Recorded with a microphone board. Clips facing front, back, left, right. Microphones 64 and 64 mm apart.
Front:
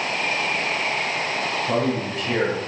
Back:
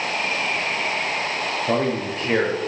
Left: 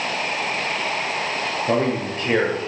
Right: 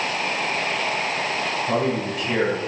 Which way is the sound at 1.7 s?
135° left.